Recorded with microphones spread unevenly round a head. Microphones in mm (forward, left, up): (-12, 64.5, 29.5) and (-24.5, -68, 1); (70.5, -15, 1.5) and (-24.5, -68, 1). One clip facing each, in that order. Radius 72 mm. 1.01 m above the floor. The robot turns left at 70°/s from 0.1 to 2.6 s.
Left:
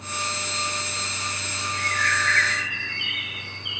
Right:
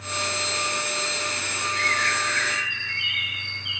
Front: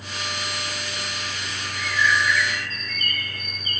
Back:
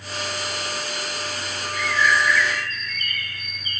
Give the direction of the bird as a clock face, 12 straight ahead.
4 o'clock.